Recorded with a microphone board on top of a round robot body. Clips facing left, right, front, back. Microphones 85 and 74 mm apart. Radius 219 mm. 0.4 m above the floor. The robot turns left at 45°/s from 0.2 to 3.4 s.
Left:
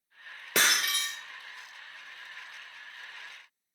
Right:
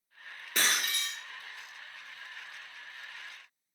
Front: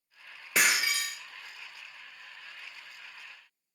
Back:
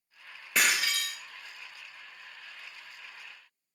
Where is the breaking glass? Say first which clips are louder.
Left 4 dB, front 1 dB; 90° left, 1.2 m; by 1.2 s 60° left, 1.2 m.